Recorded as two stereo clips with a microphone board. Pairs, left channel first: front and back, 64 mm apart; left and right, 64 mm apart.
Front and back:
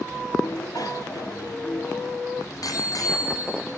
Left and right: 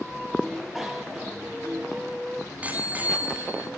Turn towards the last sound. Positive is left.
turn(degrees=-30)